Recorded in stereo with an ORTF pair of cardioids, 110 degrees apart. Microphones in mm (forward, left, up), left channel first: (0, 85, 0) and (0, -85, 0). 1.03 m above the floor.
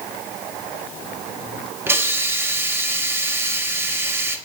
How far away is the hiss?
About 0.8 m.